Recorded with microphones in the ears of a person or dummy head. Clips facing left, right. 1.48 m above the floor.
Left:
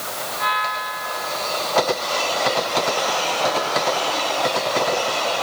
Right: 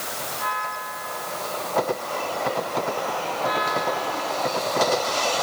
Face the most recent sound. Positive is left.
No sound to turn to.